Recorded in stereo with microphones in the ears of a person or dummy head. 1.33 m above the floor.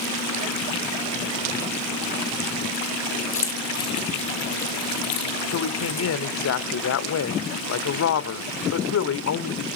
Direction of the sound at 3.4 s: 15° left (ahead or behind).